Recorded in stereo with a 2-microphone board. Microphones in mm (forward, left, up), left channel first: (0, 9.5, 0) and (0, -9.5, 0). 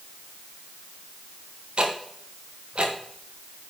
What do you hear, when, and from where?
1.8 s ticking: 60° right (ahead or behind), 1.3 m